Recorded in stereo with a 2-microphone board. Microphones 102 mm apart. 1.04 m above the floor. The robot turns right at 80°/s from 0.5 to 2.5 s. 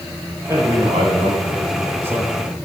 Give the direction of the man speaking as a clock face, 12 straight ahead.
5 o'clock.